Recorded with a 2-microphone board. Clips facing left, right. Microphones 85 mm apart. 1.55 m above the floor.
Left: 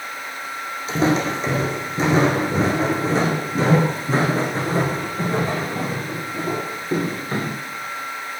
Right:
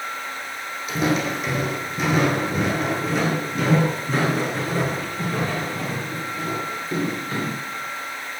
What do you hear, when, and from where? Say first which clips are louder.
0.9 s footsteps: left 3 dB; 30° left (ahead or behind), 4 m; by 7.5 s 35° left (ahead or behind), 8 m